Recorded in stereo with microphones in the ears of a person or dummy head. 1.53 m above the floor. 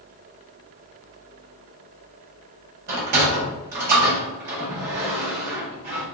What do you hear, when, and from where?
2.9 s a sliding door: 55° right (ahead or behind), 1.7 m